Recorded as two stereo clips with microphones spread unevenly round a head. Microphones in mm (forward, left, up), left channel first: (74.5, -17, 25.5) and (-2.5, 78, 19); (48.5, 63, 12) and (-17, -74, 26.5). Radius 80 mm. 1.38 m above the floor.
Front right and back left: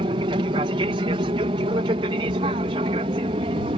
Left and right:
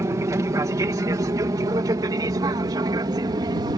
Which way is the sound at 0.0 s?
175° left.